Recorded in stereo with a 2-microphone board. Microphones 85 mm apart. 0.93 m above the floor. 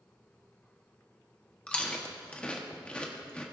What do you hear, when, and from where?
1.7 s chewing: 15° left (ahead or behind), 1.1 m